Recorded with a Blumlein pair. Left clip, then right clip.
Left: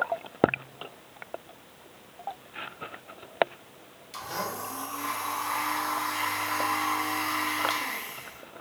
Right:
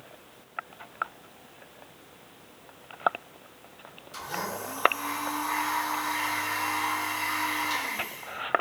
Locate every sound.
4.1 s a blender: 70° left, 1.8 m